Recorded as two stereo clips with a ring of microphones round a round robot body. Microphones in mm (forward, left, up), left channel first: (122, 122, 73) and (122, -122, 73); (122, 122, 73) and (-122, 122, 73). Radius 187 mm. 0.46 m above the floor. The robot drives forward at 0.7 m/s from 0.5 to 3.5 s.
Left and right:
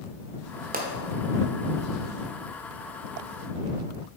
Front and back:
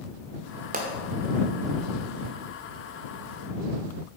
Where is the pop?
135° right, 1.2 m; by 0.9 s 140° right, 1.2 m.